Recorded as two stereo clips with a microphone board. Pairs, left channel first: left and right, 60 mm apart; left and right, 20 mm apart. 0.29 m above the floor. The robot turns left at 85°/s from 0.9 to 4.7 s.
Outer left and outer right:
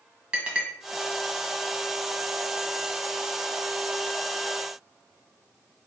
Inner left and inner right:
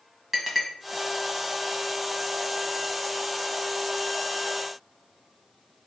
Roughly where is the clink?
Centre.